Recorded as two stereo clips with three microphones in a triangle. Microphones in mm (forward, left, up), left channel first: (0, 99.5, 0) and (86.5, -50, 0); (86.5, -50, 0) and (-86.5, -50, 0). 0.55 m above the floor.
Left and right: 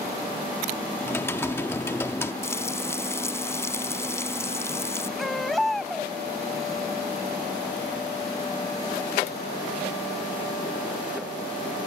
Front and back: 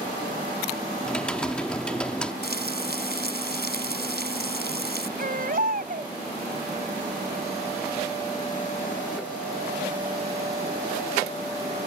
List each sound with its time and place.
1.0 s typing on a keyboard: 75° left
2.4 s frying: 165° right
5.2 s a baby crying: 150° right